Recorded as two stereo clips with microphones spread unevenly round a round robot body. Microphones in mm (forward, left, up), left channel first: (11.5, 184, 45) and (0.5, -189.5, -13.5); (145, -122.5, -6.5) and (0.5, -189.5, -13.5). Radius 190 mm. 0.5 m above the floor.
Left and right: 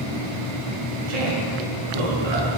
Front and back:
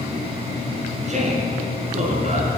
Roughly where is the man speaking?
Behind right.